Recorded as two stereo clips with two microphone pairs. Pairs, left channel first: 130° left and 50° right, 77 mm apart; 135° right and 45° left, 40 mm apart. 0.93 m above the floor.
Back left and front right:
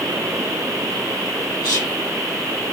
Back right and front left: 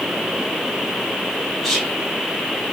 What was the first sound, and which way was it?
Whispering, 135° left.